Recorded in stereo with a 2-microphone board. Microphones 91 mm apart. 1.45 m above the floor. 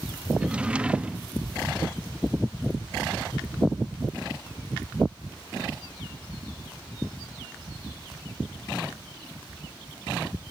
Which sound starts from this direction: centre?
A drawer, at 0.4 s.